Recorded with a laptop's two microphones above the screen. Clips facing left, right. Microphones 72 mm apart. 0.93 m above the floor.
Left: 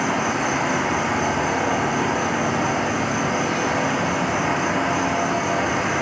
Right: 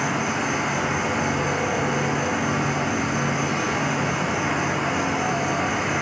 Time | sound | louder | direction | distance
0.0 | an insect | left 3 dB | 80° left | 1.5 m